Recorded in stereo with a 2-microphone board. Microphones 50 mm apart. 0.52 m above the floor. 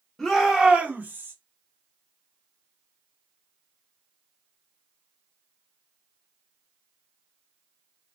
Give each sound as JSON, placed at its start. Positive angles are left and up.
{"t": 0.2, "sound": "a shout", "side_deg": 5, "distance_m": 1.1}